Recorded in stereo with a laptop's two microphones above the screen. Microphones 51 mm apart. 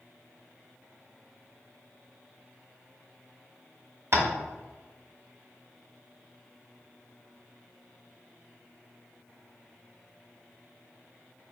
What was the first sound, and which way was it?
Tapping, 55° right (ahead or behind).